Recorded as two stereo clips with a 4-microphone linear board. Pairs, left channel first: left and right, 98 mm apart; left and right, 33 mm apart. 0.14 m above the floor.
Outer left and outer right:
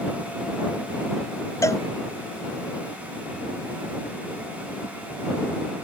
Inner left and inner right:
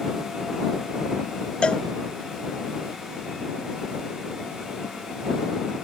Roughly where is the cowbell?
Left.